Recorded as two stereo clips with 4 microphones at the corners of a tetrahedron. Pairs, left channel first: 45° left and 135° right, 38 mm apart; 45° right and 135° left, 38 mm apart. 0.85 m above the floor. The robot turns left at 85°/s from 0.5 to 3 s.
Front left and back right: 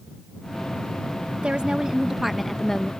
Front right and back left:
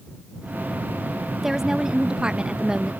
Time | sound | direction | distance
1.4 | a woman speaking | 150° right | ?